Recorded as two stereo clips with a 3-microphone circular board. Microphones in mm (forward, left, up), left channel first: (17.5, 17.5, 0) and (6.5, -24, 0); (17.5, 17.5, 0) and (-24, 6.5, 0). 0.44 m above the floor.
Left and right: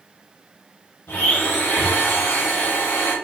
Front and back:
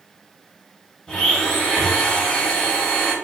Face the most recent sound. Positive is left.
turn(degrees=95)